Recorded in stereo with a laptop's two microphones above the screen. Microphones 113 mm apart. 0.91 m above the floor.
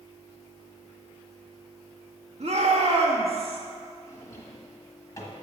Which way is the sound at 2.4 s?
65° right (ahead or behind).